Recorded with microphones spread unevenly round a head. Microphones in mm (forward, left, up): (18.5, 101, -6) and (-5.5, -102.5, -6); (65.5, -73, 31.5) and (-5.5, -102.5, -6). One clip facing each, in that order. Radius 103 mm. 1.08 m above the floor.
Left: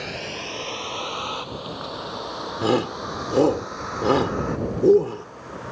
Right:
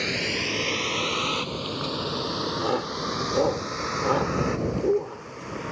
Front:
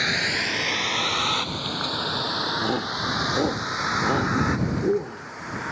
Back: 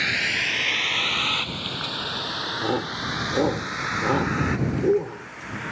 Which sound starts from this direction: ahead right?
A vehicle, at 0.0 s.